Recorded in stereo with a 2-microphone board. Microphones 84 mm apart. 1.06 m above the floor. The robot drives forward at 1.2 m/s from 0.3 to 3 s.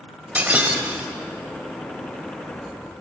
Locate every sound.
0.3 s breaking glass: 15° right (ahead or behind), 1.9 m; by 1.1 s 10° right (ahead or behind), 3 m